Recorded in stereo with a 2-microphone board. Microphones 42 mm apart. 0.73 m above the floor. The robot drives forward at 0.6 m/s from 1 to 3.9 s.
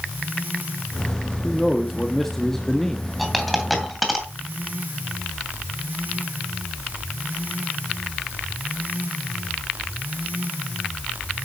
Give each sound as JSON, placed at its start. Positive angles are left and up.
{"t": 1.4, "sound": "a man speaking", "side_deg": 5, "distance_m": 1.7}
{"t": 3.2, "sound": "a dropped coin", "side_deg": 0, "distance_m": 2.5}